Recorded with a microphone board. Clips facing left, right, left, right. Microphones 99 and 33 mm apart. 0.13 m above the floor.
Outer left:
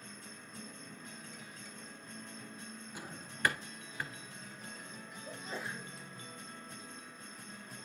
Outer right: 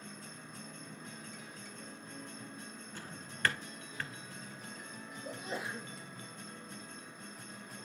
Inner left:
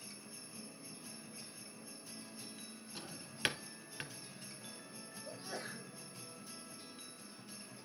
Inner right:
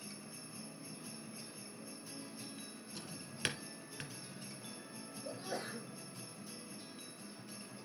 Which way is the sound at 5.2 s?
70° right (ahead or behind).